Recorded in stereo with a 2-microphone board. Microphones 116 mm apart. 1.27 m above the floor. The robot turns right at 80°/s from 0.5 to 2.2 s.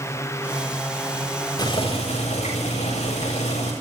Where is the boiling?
35° left, 7 m; by 3.7 s 85° left, 7 m.